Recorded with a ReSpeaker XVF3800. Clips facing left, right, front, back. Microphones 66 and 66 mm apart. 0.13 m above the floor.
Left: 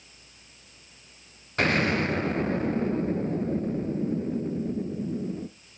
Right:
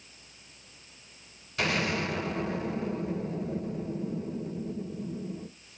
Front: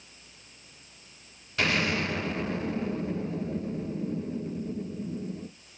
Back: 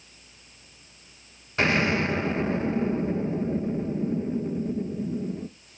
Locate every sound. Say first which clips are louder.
1.6 s an explosion: left 5 dB, back 4 dB; 125° left, 0.8 m